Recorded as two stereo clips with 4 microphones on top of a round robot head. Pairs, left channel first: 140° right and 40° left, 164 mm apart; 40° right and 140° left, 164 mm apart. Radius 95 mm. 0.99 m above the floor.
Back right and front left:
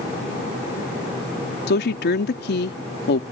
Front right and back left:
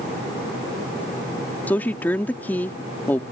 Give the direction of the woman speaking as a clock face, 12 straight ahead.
4 o'clock.